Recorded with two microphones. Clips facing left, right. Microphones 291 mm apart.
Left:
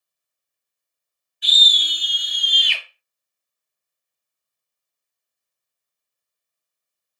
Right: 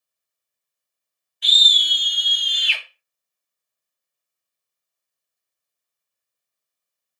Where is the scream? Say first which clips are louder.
Left 1 dB; 10° left (ahead or behind), 1.9 m; by 2.8 s 10° right (ahead or behind), 1.4 m.